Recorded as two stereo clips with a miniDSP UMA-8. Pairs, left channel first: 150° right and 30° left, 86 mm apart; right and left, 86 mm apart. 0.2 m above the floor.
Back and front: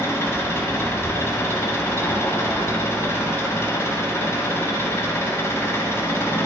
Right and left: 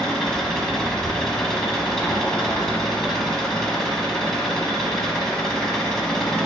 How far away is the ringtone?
I don't hear a ringtone.